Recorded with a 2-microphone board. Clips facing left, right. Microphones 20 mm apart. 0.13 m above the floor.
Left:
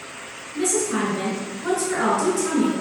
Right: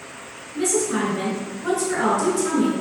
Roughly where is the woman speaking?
Centre.